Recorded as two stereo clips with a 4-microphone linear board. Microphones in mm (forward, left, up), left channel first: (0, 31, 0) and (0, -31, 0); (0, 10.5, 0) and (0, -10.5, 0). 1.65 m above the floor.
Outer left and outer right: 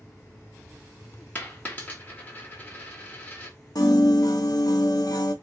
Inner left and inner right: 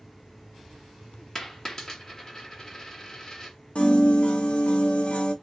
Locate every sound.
1.4 s a dropped coin: 25° left (ahead or behind), 1.3 m
3.8 s a piano: 75° left (ahead or behind), 0.9 m